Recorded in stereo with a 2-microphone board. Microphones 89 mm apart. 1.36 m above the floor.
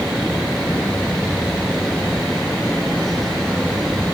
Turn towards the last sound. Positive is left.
No sound to turn to.